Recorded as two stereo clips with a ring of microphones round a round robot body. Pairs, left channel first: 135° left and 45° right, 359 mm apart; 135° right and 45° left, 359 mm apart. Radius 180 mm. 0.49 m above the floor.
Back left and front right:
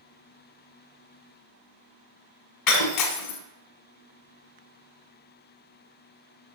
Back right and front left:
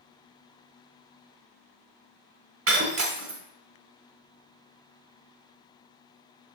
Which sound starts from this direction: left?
Breaking glass, at 2.7 s.